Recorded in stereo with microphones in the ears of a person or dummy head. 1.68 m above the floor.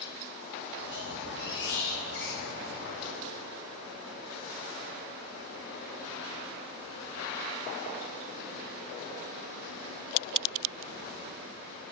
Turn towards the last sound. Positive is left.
turn(degrees=65)  # may be behind; listen again after turning